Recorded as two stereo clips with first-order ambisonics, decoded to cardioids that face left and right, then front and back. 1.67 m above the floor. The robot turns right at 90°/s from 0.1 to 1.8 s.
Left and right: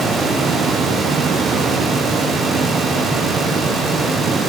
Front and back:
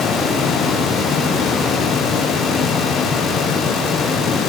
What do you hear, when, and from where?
Only background noise.